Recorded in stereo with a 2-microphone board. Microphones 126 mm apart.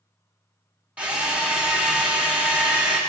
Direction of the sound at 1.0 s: 10° right (ahead or behind).